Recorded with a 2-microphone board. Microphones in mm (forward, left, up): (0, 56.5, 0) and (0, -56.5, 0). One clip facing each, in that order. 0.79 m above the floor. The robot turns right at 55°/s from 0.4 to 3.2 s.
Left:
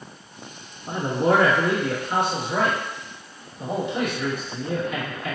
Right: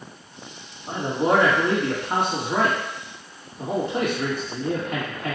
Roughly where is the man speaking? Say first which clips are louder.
Left 1 dB; centre.